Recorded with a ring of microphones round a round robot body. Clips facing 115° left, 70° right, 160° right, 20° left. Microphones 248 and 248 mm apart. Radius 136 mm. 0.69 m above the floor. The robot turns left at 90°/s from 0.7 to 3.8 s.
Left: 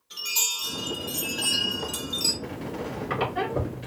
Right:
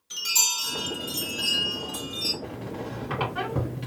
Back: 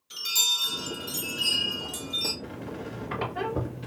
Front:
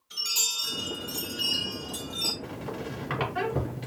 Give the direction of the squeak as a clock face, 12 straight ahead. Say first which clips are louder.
Left 2 dB, front 1 dB; 9 o'clock.